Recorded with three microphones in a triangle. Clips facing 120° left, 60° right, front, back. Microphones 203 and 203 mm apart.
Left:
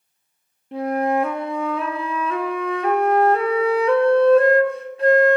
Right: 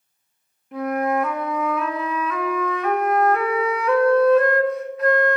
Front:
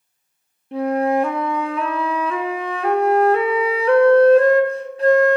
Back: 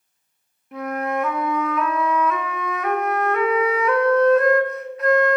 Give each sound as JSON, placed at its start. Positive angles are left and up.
{"t": 0.7, "sound": "a flute", "azimuth_deg": 60, "distance_m": 0.6}